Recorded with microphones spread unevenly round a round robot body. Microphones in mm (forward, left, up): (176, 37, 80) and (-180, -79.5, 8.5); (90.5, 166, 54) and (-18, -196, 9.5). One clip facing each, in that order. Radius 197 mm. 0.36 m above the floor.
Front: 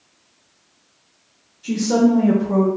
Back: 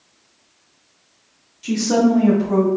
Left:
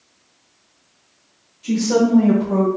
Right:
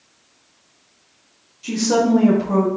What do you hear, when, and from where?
1.6 s a woman speaking: 165° right, 1.0 m; by 2.7 s 100° right, 1.8 m